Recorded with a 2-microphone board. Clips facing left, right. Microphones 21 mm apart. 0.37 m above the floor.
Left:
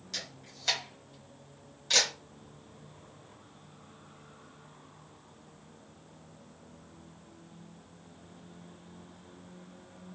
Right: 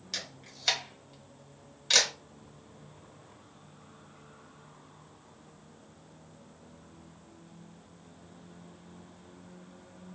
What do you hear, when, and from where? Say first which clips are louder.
0.1 s a camera shutter: right 1 dB; 30° right (ahead or behind), 1.2 m